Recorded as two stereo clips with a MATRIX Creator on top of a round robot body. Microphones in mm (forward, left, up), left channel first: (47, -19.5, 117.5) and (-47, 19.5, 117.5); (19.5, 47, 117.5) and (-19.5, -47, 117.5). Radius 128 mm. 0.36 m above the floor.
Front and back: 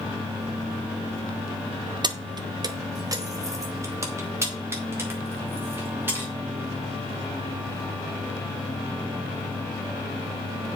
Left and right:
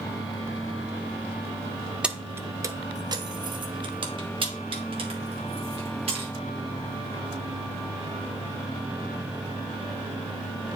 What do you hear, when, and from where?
2.0 s keys jangling: 170° left, 0.7 m; by 6.3 s 135° right, 2.5 m